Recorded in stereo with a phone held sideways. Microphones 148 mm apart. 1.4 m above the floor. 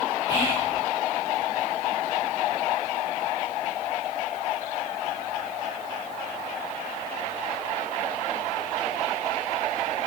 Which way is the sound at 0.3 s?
20° right (ahead or behind).